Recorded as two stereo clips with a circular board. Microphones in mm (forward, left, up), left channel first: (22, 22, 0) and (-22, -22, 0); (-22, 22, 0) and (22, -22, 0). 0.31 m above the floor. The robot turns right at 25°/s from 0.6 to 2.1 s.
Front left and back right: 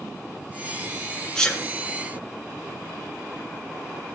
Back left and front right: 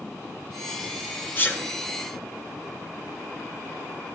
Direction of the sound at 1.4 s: 115° left.